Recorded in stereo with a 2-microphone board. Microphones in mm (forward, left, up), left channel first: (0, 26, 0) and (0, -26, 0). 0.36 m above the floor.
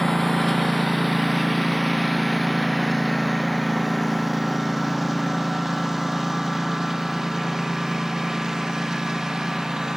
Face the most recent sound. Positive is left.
turn(degrees=-10)  # may be behind; listen again after turning